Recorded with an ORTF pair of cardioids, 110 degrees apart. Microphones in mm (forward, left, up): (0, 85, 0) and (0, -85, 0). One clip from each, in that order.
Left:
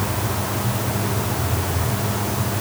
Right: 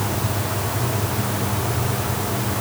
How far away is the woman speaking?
No woman speaking in this recording.